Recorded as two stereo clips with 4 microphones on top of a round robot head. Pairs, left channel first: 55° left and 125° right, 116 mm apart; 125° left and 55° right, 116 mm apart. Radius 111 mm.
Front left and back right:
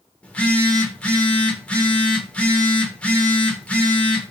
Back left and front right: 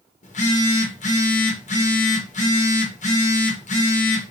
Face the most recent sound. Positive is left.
turn(degrees=135)